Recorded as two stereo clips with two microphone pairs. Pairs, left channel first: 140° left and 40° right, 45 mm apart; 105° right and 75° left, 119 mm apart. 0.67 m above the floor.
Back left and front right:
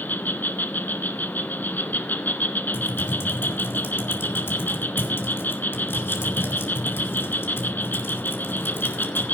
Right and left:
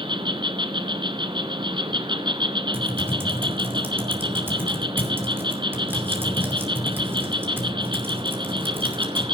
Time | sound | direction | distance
0.0 | an insect | 110° left | 1.1 m
2.7 | typing on a keyboard | 145° left | 2.5 m